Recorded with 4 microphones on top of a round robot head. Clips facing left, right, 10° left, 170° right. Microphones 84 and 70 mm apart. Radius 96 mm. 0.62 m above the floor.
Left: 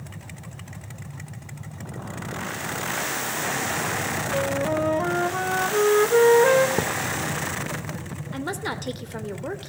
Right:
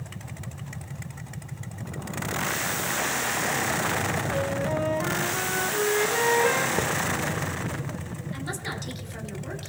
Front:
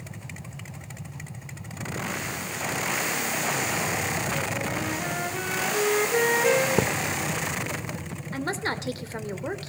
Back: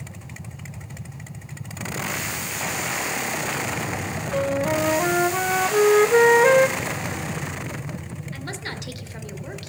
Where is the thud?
15° left, 0.7 m.